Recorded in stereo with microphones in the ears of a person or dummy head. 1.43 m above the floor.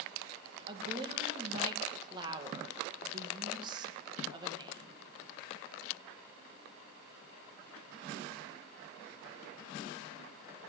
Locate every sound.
0.7 s a woman speaking: 35° right (ahead or behind), 1.6 m